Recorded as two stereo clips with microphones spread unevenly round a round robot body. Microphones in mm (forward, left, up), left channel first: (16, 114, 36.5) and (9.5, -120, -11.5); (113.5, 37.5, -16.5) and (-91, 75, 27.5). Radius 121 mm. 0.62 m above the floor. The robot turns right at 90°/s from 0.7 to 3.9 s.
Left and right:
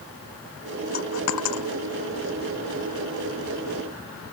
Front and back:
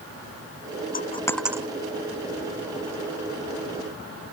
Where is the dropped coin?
35° left; by 1.7 s 100° left.